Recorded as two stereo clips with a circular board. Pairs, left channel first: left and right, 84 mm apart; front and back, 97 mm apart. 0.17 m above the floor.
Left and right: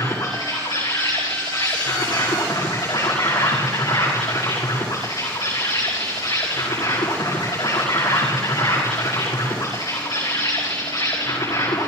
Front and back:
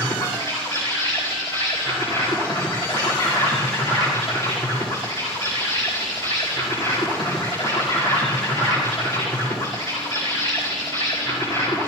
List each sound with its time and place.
0.0 s an insect: 50° left, 6 m